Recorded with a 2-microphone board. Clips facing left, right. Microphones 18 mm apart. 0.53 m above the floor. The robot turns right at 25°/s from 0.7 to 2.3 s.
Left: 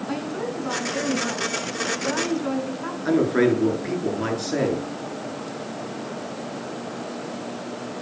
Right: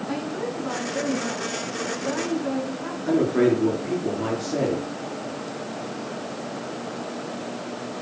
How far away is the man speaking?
About 7.5 m.